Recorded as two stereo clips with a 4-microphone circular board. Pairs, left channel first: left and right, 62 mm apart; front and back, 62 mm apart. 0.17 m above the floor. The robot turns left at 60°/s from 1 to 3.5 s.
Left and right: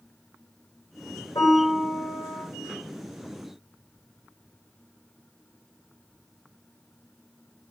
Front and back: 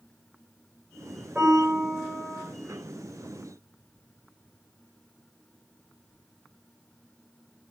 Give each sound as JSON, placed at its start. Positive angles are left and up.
{"t": 1.4, "sound": "a piano", "azimuth_deg": 110, "distance_m": 9.5}